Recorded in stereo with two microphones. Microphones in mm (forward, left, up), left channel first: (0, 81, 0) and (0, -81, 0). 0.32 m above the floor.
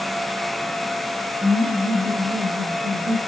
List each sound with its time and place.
1.4 s laughter: 50° right (ahead or behind), 4.5 m; by 3.2 s 60° right (ahead or behind), 3 m